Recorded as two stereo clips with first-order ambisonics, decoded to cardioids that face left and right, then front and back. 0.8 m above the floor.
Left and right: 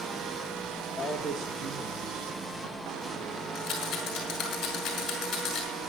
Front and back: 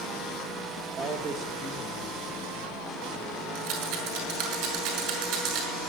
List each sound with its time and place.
1.0 s a man speaking: straight behind, 0.8 m; by 3.4 s 85° right, 3 m
3.5 s a rattle: 160° left, 6 m